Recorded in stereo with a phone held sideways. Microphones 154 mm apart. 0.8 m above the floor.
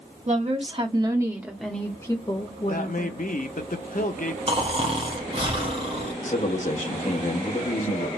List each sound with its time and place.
0.3 s a woman speaking: 50° right (ahead or behind), 1.2 m; by 3.2 s 50° left (ahead or behind), 1.4 m
2.7 s a man speaking: 60° left (ahead or behind), 0.8 m
4.5 s snoring: 35° right (ahead or behind), 1.0 m
6.2 s a man speaking: 50° left (ahead or behind), 1.0 m